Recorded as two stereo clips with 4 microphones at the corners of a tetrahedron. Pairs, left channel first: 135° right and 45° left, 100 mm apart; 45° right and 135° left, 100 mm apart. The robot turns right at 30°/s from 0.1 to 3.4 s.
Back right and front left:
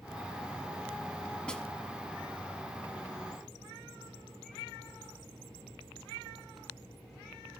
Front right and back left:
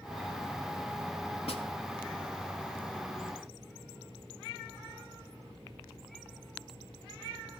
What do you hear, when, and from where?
1.5 s a snare drum: 55° right, 0.9 m; by 1.6 s 50° right, 0.9 m